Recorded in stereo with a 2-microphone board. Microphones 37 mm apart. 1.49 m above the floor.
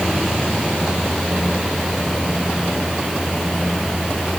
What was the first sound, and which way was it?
Only background noise.